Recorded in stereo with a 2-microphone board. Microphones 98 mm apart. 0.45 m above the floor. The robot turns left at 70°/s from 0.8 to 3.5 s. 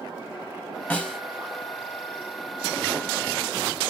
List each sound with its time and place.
0.9 s a snare drum: 20° left (ahead or behind), 1.2 m; by 1.2 s centre (ahead or behind), 1.2 m